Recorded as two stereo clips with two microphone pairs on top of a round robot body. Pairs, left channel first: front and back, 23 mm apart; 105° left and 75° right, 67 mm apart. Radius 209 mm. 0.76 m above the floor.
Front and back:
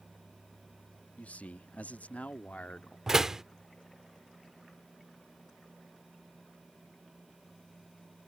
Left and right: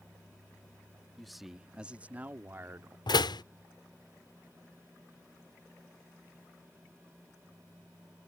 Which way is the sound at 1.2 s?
15° left.